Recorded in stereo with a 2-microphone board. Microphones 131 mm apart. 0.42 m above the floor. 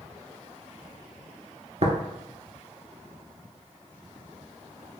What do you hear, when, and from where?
1.8 s tapping: 60° right (ahead or behind), 0.8 m